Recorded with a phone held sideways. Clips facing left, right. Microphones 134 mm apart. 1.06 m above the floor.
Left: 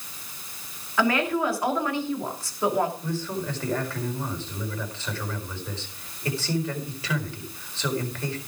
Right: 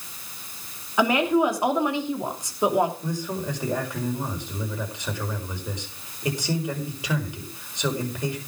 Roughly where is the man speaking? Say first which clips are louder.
Right 1 dB; centre.